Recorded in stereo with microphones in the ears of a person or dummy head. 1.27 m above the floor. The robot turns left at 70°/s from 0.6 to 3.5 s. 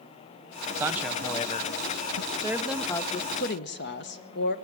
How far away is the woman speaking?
About 1.0 m.